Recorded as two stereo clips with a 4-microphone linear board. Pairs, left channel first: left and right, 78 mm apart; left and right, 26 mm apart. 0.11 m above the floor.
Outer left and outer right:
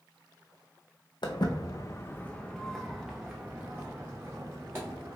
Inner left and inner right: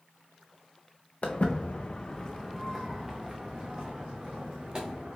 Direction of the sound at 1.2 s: 70° left (ahead or behind).